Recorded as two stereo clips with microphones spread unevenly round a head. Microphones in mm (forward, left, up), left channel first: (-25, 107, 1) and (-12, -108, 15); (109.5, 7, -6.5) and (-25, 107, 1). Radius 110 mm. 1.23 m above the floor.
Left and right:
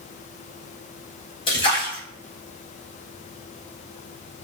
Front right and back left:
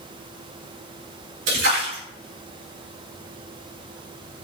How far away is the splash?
About 5 m.